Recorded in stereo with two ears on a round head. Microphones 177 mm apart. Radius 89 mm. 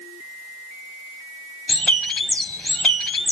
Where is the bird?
5° left (ahead or behind), 0.8 m.